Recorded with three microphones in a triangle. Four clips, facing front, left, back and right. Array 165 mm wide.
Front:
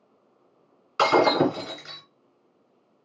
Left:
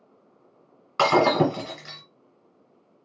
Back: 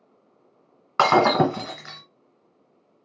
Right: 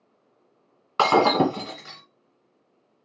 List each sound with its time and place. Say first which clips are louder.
1.0 s breaking glass: right 1 dB, back 2 dB; 160° right, 1.4 m